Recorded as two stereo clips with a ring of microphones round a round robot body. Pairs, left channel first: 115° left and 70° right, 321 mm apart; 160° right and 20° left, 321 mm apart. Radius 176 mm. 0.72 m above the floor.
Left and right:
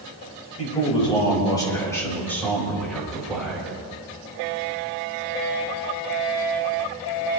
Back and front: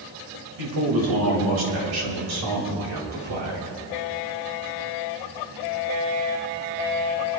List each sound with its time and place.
0.6 s a man speaking: 40° left, 4.5 m; by 3.8 s 20° left, 5.5 m